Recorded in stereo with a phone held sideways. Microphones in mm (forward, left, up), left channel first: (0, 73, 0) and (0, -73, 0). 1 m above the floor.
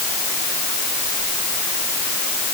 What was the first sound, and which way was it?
Only background noise.